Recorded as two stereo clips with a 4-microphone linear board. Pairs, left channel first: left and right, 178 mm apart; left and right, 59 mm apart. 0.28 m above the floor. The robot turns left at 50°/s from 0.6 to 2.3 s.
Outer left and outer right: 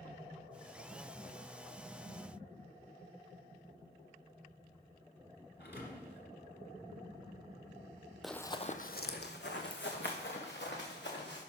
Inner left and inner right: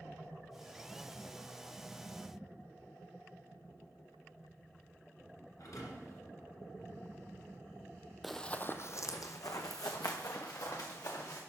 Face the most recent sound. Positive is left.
turn(degrees=80)